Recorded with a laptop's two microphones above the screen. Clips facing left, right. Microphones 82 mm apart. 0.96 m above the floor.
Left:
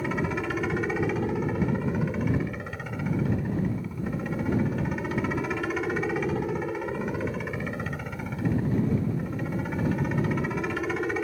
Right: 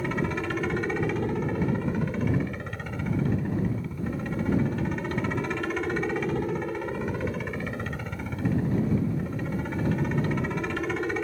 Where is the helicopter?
5° left (ahead or behind).